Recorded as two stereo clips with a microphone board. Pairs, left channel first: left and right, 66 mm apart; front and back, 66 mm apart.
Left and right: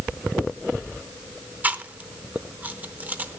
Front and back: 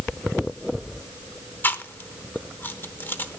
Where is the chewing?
40° right, 0.8 m.